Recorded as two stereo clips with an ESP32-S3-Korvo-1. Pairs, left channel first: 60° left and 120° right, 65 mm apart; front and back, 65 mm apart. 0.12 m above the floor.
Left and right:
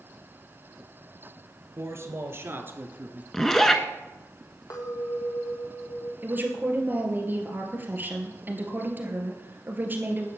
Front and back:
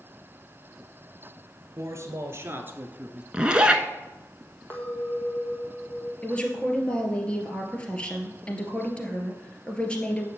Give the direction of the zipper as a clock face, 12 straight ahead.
8 o'clock.